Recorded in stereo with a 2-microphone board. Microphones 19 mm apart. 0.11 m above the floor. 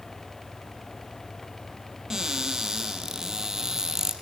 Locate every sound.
2.1 s a cupboard door: 30° right (ahead or behind), 3 m